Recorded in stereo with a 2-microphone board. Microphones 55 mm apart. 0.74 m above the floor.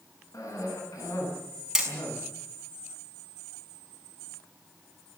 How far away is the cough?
About 8.5 m.